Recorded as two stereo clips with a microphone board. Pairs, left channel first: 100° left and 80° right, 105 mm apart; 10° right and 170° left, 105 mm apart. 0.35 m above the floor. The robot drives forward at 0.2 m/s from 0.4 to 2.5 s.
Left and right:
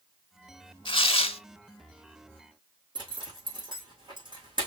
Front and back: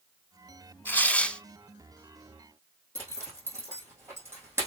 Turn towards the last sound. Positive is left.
turn(degrees=-125)